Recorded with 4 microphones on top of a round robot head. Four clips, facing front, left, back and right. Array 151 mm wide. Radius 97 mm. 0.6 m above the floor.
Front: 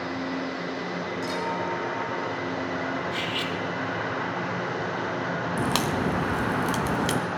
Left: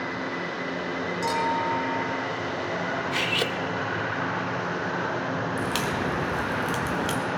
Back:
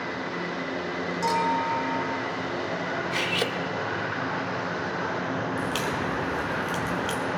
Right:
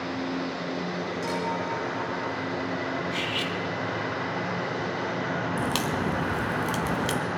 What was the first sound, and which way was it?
A clink, 150° left.